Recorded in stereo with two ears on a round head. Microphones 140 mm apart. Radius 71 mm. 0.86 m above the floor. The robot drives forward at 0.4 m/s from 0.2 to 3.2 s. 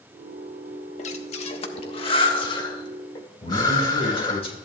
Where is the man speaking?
40° left (ahead or behind), 3.5 m.